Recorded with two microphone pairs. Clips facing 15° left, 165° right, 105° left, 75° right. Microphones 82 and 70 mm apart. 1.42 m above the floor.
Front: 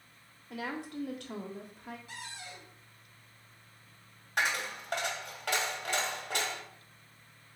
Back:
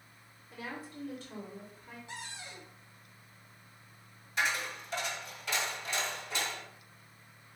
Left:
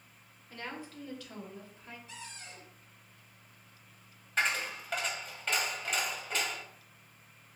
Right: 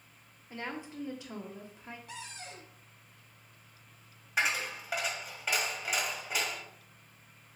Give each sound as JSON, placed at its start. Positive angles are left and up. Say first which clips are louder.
{"t": 0.5, "sound": "a woman speaking", "louder": "front 5 dB, right 3 dB", "azimuth_deg": -5, "distance_m": 0.8}
{"t": 2.1, "sound": "a cupboard door", "louder": "even, right 3 dB", "azimuth_deg": -100, "distance_m": 1.0}
{"t": 4.4, "sound": "a dropped coin", "louder": "front 1 dB, even", "azimuth_deg": 5, "distance_m": 1.3}